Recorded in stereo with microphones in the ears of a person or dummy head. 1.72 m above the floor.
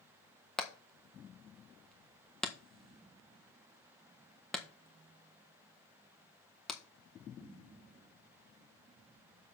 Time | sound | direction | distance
0.6 | hammering | 5° left (ahead or behind) | 1.4 m